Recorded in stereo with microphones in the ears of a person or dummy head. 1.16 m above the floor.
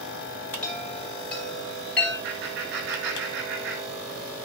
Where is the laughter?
65° right (ahead or behind), 3.5 m.